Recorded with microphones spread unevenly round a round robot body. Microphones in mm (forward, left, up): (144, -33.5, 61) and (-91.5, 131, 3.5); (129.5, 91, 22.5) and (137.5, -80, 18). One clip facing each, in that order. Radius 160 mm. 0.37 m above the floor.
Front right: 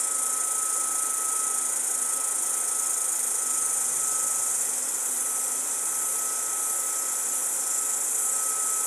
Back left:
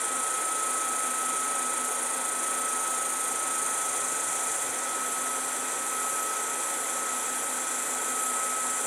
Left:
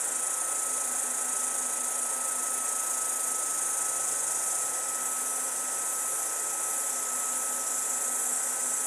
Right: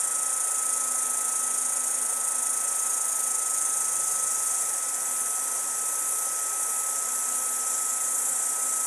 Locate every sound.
0.0 s an insect: 75° right, 2 m